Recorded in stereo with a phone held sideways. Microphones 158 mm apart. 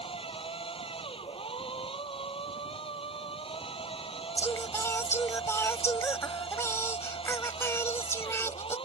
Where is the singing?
15° left (ahead or behind).